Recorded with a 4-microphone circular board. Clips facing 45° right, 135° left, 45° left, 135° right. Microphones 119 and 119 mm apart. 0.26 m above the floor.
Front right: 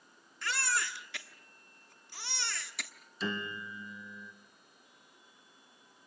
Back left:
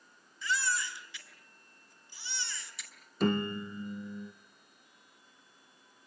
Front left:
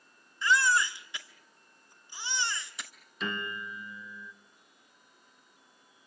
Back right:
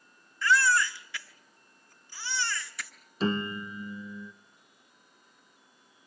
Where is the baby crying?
25° right, 1.5 m.